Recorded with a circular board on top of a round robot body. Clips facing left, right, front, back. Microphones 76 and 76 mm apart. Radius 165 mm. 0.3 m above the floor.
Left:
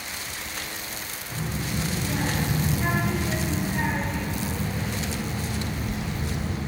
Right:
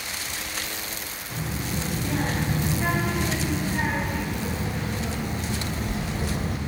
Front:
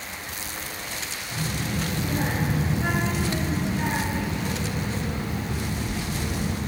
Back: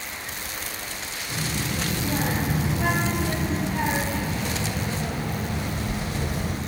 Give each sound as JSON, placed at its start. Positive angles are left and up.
{"t": 1.3, "sound": "a child speaking", "azimuth_deg": 170, "distance_m": 4.0}